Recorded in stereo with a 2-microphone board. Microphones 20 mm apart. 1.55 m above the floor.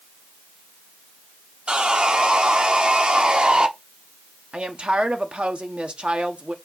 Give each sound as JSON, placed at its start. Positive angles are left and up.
{"t": 1.7, "sound": "sawing", "side_deg": -65, "distance_m": 0.8}
{"t": 4.5, "sound": "a woman speaking", "side_deg": -85, "distance_m": 1.0}